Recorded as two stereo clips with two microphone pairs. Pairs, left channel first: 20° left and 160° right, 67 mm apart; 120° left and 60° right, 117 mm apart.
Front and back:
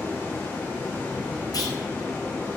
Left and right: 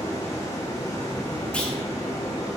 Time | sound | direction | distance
0.0 | running water | 75° left | 0.9 m
1.5 | a clunk | 40° left | 0.6 m